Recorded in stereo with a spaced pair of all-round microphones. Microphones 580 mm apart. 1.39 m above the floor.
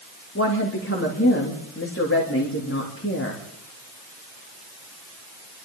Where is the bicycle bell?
I don't hear a bicycle bell.